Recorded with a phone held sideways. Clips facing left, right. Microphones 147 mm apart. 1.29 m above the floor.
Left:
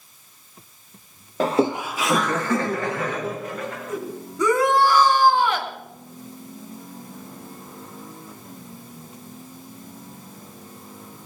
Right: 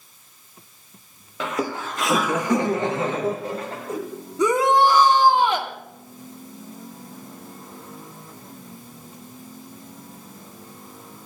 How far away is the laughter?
About 0.7 m.